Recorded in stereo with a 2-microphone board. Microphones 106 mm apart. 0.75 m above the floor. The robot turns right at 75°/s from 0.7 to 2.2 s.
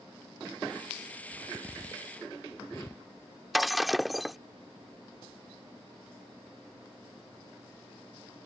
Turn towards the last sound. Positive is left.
turn(degrees=0)  # may be behind; listen again after turning